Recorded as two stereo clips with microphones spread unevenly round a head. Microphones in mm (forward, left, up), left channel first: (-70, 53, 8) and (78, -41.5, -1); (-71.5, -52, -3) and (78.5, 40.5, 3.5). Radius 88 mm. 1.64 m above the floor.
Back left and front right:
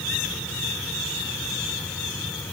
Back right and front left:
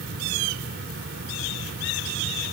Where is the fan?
65° left.